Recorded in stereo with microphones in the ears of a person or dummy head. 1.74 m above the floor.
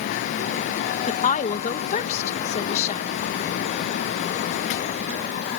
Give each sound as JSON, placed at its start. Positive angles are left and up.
{"t": 1.1, "sound": "a woman speaking", "side_deg": 40}